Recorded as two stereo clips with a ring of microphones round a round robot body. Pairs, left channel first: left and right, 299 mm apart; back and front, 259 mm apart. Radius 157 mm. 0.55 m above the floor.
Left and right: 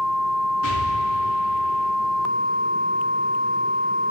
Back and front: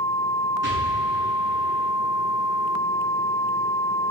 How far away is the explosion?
About 7 m.